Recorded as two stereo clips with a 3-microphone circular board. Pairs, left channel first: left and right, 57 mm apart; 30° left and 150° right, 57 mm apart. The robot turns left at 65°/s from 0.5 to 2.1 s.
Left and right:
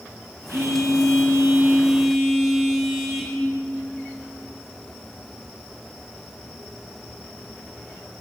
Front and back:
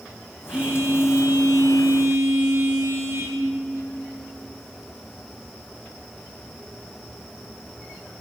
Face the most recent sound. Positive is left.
turn(degrees=180)